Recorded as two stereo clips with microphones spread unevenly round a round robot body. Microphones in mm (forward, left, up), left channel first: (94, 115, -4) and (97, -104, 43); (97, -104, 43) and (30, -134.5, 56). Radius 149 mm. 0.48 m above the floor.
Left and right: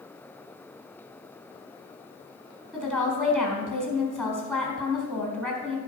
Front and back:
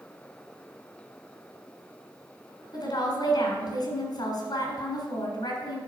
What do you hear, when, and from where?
2.7 s a woman speaking: 10° left, 3.5 m